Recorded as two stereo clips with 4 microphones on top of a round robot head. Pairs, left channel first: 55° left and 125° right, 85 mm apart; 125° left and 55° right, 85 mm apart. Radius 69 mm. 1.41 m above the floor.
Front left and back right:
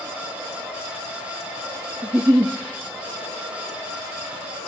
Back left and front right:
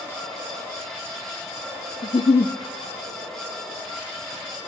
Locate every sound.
2.0 s a giggle: 165° left, 0.5 m